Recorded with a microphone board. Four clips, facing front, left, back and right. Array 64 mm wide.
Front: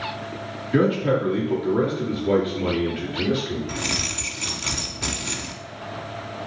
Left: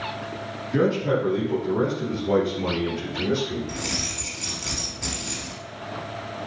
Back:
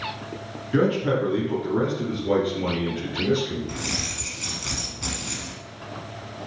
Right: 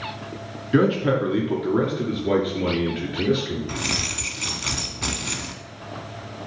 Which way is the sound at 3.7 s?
65° right.